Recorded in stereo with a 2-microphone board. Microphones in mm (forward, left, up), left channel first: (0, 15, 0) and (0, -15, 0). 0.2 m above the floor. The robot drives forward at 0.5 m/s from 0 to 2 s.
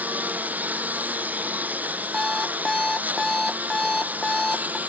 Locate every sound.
0.0 s a lawn mower: 90° right; by 4.9 s 85° right
2.1 s an alarm clock: 15° left (ahead or behind)